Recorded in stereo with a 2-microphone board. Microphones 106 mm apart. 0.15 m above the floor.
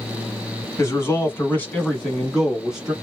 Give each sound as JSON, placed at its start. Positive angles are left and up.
{"t": 0.8, "sound": "a man speaking", "side_deg": 30, "distance_m": 1.1}